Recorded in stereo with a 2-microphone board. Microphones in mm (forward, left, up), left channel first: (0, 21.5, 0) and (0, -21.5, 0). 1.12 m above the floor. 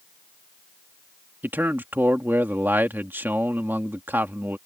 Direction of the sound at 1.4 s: 55° right (ahead or behind).